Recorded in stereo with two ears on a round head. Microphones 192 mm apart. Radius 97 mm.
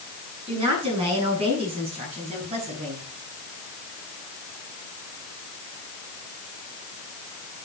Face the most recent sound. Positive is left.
turn(degrees=-30)  # may be behind; listen again after turning